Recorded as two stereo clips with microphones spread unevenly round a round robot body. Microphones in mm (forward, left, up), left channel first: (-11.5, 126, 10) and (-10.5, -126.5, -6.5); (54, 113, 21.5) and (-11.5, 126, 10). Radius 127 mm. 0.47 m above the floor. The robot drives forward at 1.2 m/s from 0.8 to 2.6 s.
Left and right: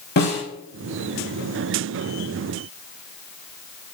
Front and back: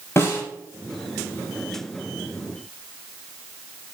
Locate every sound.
0.2 s a snare drum: 40° left, 5 m